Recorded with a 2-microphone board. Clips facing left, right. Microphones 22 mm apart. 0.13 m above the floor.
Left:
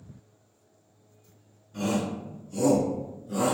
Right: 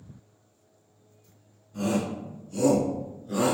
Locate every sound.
1.7 s a shout: 25° left (ahead or behind), 1.7 m; by 3.5 s 45° right (ahead or behind), 2 m